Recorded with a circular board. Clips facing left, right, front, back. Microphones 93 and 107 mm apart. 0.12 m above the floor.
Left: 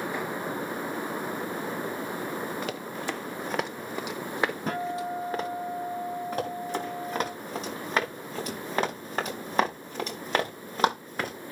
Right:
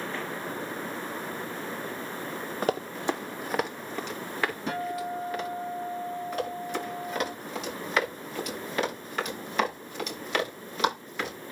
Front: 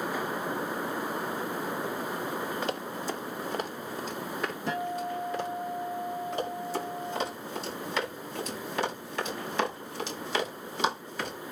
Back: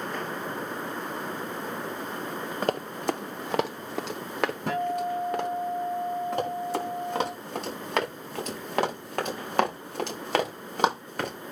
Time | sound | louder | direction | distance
2.6 | running footsteps | right 5 dB, back 5 dB | 135° right | 1.5 m
4.7 | a guitar | left 1 dB, back 3 dB | 145° left | 6 m
6.3 | running footsteps | even, back 4 dB | 145° left | 8 m